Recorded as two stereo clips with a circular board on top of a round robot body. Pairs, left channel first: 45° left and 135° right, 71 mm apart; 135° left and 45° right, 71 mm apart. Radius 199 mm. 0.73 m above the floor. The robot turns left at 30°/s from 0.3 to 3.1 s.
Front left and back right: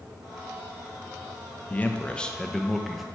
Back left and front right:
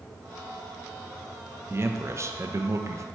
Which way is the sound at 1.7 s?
10° right.